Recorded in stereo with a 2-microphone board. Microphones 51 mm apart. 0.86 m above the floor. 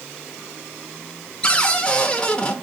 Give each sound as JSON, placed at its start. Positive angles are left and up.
{"t": 1.4, "sound": "a cupboard door", "side_deg": 20, "distance_m": 0.6}